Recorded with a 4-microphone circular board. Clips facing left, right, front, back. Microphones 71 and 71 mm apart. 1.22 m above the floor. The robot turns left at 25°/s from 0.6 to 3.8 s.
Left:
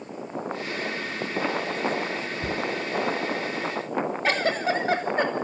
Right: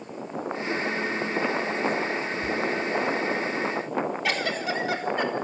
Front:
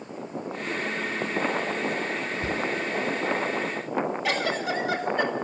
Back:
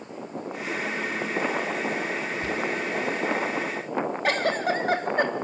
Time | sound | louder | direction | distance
2.4 | a cupboard door | even, even | 65° left | 1.1 m
4.2 | a giggle | left 3 dB, back 2 dB | 140° left | 3 m